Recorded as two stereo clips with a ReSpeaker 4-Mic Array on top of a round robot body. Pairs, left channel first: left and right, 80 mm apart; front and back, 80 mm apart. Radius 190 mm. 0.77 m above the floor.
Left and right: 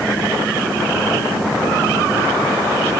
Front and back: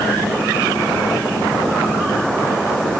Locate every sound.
Only background noise.